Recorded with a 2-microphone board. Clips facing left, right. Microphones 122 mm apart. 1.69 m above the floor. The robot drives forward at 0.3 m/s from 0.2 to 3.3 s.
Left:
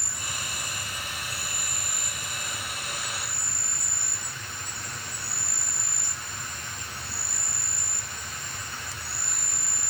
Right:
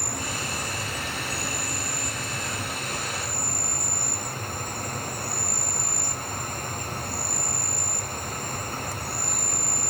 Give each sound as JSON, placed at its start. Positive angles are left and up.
{"t": 0.0, "sound": "an insect", "side_deg": -55}